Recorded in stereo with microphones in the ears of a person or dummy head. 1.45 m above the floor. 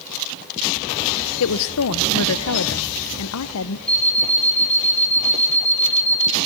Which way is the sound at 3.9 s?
Centre (ahead or behind).